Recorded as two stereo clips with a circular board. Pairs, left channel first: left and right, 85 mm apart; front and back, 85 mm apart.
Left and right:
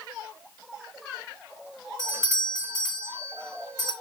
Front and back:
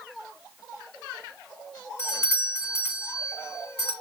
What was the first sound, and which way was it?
A doorbell, 50° right.